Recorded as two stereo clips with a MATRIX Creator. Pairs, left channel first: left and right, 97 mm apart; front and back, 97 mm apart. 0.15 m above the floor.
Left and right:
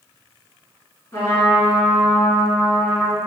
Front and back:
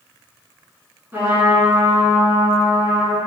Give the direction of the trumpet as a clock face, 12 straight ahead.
8 o'clock.